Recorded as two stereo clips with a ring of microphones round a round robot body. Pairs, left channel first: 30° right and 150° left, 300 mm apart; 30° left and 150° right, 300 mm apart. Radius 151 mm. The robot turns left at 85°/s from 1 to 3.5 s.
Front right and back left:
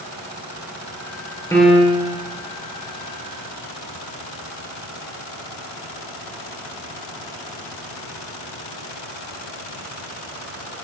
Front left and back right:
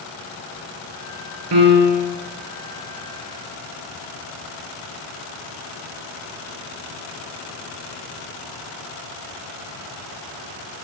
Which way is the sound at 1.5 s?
110° right.